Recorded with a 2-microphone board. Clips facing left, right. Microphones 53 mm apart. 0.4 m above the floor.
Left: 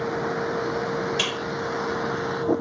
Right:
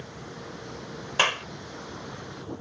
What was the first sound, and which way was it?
A vehicle, 80° left.